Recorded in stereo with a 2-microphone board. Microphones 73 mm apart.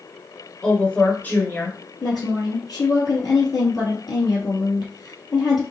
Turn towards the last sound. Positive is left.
turn(degrees=60)  # may be behind; listen again after turning